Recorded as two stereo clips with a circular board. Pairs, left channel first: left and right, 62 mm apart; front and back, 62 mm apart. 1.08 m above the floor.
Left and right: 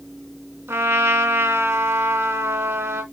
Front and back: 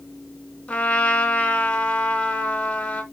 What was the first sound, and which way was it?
A trumpet, 65° right.